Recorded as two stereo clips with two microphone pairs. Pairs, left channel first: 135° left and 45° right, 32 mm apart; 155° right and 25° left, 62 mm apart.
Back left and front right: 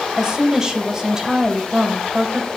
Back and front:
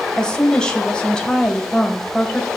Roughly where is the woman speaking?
Right.